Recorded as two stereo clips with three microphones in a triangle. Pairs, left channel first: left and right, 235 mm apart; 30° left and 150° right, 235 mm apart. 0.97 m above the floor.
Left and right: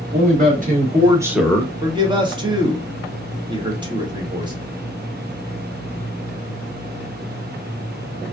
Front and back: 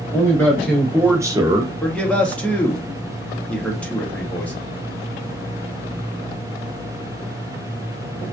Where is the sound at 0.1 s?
50° right, 1.1 m; by 1.7 s 160° left, 0.7 m.